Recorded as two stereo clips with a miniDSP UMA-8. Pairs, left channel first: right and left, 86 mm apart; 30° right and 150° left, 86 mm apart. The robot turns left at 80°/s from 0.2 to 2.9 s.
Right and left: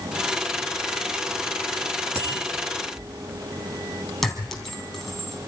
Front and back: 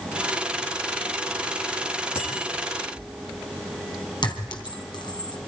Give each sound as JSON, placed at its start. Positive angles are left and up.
{"t": 2.1, "sound": "a bicycle bell", "azimuth_deg": 35, "distance_m": 9.0}
{"t": 4.2, "sound": "a clink", "azimuth_deg": 0, "distance_m": 2.5}